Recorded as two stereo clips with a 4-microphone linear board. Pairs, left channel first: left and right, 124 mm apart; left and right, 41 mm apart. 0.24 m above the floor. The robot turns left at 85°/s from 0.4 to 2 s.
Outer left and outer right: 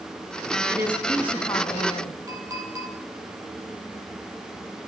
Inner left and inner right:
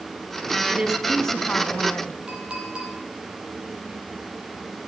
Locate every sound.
0.7 s a woman speaking: 145° right, 2 m; by 2.1 s 100° left, 2 m
2.3 s a clink: 25° right (ahead or behind), 4 m